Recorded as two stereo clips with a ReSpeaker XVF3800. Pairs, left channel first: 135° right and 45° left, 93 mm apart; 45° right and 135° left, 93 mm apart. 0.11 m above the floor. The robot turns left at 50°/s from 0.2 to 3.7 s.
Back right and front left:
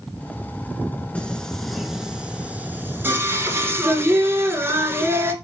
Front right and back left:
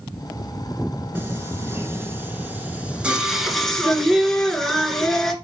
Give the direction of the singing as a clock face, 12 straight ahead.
7 o'clock.